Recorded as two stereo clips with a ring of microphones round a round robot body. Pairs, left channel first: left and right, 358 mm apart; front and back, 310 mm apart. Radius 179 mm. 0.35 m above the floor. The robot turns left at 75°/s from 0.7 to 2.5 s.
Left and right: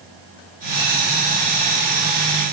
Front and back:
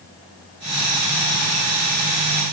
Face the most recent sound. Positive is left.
No sound to turn to.